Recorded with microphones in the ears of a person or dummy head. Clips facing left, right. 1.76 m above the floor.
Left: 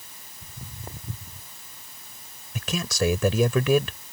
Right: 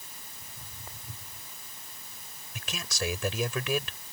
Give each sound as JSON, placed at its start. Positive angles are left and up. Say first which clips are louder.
{"t": 0.4, "sound": "footsteps", "louder": "left 10 dB", "side_deg": 50}
{"t": 2.5, "sound": "a man speaking", "louder": "left 10 dB", "side_deg": 65}